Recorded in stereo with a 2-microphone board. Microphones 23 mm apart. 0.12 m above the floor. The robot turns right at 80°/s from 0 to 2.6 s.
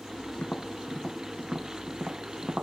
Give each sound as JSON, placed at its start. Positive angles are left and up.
{"t": 0.4, "sound": "tapping", "side_deg": 65}